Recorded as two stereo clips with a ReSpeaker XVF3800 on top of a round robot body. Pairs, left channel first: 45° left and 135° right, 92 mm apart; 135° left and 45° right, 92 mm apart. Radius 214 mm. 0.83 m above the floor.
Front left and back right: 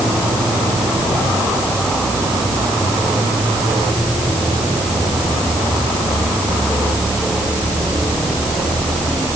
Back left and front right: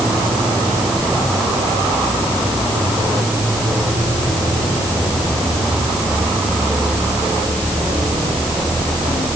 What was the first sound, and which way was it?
Only background noise.